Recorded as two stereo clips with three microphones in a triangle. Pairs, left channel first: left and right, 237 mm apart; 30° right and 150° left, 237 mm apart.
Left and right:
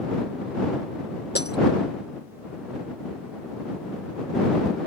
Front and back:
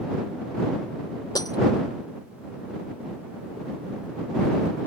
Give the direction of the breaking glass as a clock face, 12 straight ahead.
11 o'clock.